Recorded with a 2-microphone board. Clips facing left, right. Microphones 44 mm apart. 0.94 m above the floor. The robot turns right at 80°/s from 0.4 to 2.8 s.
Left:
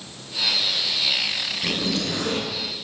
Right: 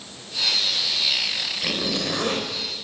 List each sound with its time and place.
1.6 s a zipper: 170° right, 2.5 m; by 2.5 s 100° right, 2.5 m